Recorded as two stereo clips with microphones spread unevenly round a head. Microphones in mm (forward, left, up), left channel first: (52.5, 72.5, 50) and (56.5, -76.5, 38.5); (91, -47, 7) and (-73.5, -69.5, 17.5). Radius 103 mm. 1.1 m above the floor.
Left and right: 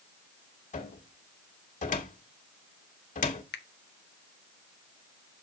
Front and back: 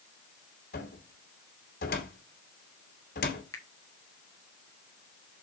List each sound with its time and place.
0.7 s a cupboard door: 55° left, 2 m
3.5 s a finger snap: 85° left, 0.9 m